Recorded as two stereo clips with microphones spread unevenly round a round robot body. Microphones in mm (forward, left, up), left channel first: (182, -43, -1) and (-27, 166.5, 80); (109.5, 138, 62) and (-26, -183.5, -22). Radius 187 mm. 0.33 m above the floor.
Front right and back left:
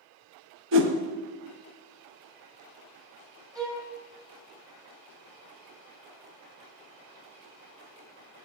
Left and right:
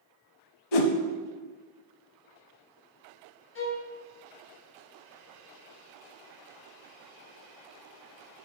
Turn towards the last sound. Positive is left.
turn(degrees=35)